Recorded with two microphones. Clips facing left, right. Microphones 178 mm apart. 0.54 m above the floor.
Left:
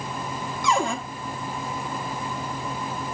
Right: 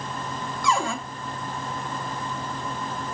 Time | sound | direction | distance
0.6 | a cupboard door | 20° left (ahead or behind) | 0.9 m